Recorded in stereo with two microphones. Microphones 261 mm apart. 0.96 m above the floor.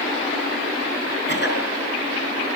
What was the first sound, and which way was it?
A cough, 45° left (ahead or behind).